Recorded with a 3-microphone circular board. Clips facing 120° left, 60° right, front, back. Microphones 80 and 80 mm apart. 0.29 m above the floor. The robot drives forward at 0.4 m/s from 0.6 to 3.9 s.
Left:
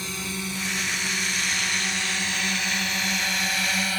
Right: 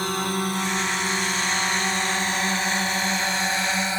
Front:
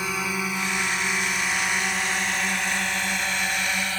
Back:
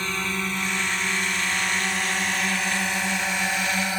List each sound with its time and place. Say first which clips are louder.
0.0 s a drone: right 8 dB, front 1 dB; 80° right; by 4.0 s 115° right